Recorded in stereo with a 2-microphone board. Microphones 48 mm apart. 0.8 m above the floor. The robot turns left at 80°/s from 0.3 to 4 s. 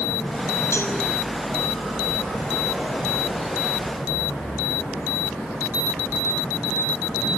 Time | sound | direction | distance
0.7 | a cowbell | 80° left | 6 m